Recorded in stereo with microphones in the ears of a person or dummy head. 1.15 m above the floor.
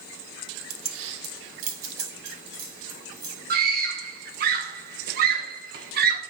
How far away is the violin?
No violin in this recording.